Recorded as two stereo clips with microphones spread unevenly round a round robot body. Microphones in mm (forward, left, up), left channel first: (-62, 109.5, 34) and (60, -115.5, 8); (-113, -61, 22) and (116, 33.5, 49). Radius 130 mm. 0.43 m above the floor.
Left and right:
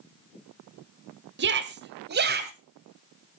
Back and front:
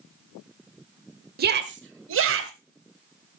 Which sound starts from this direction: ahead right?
A shout, at 1.4 s.